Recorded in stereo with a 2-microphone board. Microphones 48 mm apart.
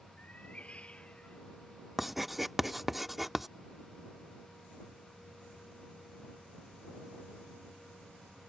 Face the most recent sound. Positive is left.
turn(degrees=-5)  # may be behind; listen again after turning